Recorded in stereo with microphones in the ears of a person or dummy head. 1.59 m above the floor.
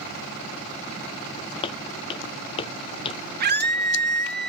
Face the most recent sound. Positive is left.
turn(degrees=-50)  # may be behind; listen again after turning